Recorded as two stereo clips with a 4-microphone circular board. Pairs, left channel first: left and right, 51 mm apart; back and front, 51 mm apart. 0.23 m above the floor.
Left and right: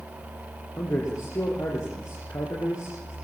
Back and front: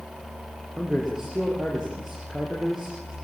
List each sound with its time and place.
0.8 s a man speaking: 85° left, 7.5 m